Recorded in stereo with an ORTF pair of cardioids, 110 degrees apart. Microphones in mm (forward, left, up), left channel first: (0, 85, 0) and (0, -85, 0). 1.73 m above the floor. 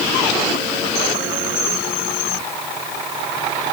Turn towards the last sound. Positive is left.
No sound to turn to.